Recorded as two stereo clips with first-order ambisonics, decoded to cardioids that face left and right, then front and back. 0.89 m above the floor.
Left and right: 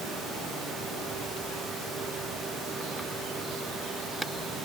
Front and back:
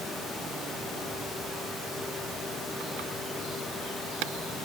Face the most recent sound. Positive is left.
No sound to turn to.